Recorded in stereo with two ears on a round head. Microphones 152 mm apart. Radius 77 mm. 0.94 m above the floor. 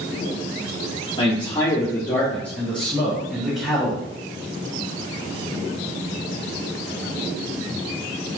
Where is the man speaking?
30° left (ahead or behind), 1.8 m; by 4.0 s 5° right (ahead or behind), 3 m.